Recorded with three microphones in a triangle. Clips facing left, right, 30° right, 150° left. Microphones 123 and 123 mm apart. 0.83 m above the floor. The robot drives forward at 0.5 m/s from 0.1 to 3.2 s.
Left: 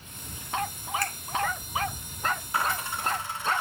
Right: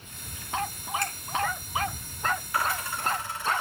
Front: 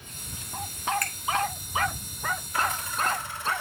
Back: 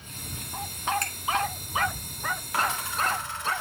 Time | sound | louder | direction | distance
1.0 | a finger snap | even, even | 150° right | 1.4 m
2.5 | a dropped coin | even, back 2 dB | 155° left | 2.5 m